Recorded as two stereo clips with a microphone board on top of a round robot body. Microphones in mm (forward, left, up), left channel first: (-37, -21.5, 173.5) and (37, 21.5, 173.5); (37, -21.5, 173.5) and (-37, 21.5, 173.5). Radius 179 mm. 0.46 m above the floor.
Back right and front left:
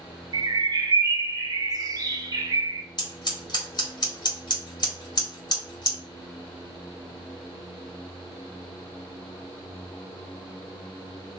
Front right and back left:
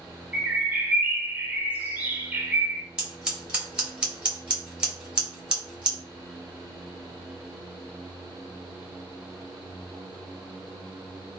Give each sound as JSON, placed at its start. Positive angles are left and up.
{"t": 0.3, "sound": "a bird", "azimuth_deg": 75, "distance_m": 0.8}
{"t": 3.0, "sound": "scissors", "azimuth_deg": -135, "distance_m": 2.0}